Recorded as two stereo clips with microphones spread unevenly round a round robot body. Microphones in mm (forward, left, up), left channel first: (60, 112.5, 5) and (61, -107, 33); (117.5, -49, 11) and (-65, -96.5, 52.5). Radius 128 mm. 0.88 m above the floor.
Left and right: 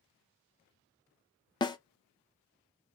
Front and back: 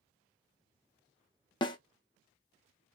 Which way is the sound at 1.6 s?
40° left.